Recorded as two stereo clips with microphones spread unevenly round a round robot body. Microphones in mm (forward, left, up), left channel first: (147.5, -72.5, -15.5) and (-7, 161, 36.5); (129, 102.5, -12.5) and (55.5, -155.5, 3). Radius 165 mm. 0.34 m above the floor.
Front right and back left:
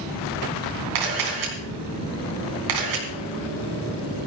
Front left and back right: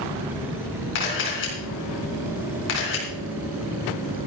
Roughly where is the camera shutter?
Behind left.